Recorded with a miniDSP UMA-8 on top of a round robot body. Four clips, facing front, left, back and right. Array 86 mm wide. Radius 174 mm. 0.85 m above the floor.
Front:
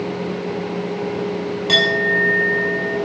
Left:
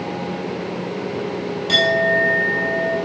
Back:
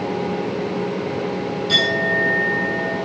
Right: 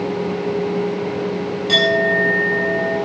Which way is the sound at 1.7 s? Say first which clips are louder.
Right 1 dB, front 3 dB; 5° right.